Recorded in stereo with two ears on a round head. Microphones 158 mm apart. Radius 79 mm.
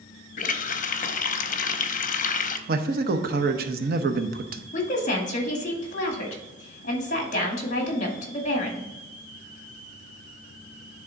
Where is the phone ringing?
I don't hear a phone ringing.